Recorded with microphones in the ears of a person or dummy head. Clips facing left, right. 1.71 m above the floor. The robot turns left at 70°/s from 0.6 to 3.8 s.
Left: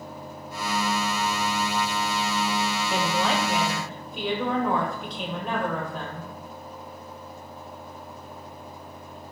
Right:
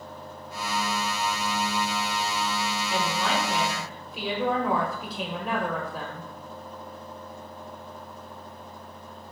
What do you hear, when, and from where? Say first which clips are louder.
2.9 s a woman speaking: left 2 dB; 55° left, 0.6 m; by 6.3 s 5° right, 0.6 m